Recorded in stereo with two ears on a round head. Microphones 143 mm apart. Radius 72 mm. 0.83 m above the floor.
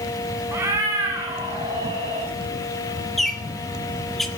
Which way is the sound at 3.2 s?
Centre (ahead or behind).